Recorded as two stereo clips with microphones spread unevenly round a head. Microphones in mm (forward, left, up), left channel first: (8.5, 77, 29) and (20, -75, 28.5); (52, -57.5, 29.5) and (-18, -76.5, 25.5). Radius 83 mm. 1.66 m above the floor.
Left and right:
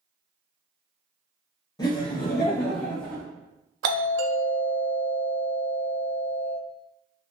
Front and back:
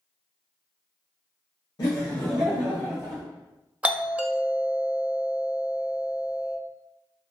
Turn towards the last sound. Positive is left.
turn(degrees=-95)